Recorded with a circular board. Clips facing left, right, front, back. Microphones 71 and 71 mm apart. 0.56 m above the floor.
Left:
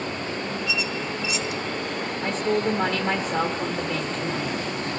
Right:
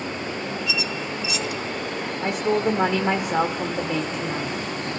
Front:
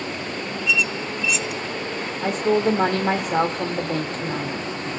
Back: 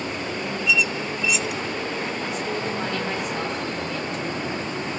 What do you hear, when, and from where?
0.7 s a squeak: 90° right, 1.2 m
2.2 s a woman speaking: 20° right, 1.2 m